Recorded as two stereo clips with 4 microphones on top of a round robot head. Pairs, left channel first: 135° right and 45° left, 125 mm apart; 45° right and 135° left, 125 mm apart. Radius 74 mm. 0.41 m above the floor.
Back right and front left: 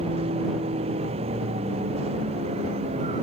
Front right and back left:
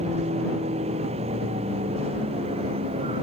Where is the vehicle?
90° left.